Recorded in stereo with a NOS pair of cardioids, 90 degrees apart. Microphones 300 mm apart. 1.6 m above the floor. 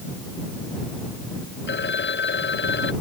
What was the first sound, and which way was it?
A phone ringing, 35° left.